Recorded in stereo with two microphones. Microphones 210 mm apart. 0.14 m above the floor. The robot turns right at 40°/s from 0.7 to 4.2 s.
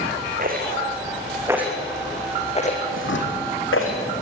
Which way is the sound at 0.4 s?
45° right (ahead or behind).